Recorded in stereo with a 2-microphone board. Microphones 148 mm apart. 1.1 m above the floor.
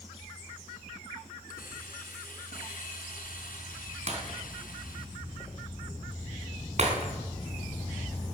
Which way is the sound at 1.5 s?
75° left (ahead or behind).